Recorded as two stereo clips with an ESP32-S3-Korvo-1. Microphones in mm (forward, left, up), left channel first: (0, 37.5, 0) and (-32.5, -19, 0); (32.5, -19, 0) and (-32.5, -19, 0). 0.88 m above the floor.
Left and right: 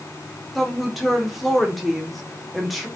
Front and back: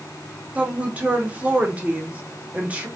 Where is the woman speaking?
150° left, 0.7 m.